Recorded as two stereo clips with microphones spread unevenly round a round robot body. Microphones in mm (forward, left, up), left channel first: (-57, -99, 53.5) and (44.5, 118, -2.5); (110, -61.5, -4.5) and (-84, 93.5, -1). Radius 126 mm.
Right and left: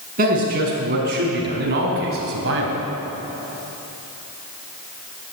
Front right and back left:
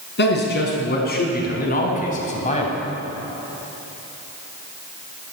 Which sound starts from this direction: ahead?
A man speaking, at 0.2 s.